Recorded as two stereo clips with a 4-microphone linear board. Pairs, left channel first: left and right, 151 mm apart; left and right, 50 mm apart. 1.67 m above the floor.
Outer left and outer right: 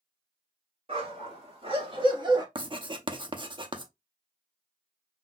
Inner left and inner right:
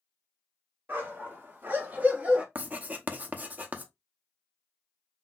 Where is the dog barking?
40° right (ahead or behind), 2 m; by 2.5 s 30° right (ahead or behind), 1.2 m.